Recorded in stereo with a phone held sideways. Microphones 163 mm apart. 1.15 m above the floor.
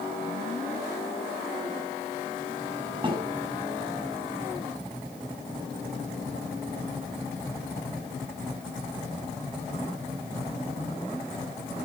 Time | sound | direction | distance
3.0 | a snare drum | 30° right (ahead or behind) | 8.5 m